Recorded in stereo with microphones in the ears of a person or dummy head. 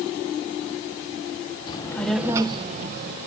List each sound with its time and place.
1.7 s a child speaking: 30° left (ahead or behind), 1.2 m; by 3.2 s 50° right (ahead or behind), 1.5 m